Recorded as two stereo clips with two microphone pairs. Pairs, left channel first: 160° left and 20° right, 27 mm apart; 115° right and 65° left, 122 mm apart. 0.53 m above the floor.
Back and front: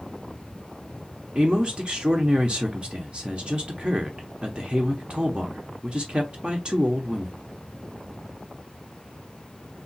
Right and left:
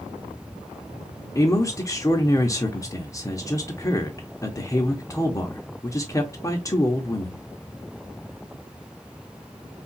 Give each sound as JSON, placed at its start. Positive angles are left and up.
{"t": 1.4, "sound": "a man speaking", "azimuth_deg": -60, "distance_m": 0.9}